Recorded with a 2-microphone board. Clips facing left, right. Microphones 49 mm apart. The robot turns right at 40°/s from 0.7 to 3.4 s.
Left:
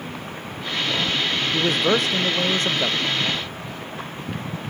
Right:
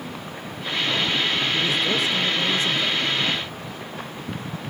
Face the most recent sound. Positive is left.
turn(degrees=140)